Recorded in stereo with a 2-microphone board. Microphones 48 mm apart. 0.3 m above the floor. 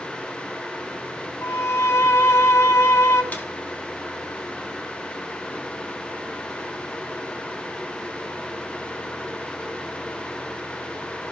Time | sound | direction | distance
1.4 | a violin | 65° left (ahead or behind) | 2.5 m
3.3 | a snare drum | 35° left (ahead or behind) | 3.5 m